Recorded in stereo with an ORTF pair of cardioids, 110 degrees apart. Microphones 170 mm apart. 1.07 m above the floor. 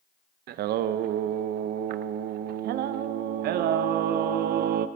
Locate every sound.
0.5 s singing: 70° right, 0.6 m